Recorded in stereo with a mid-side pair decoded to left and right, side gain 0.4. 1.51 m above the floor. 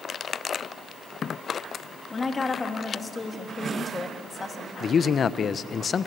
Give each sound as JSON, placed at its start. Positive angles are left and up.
{"t": 2.1, "sound": "a woman speaking", "azimuth_deg": 35, "distance_m": 3.0}
{"t": 4.8, "sound": "a man speaking", "azimuth_deg": 55, "distance_m": 1.1}